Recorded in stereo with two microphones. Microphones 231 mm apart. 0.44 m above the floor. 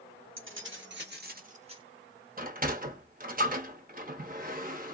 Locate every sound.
0.4 s keys jangling: 65° right (ahead or behind), 1.4 m; by 1.8 s 20° right (ahead or behind), 0.7 m
2.4 s a sliding door: 40° right (ahead or behind), 0.7 m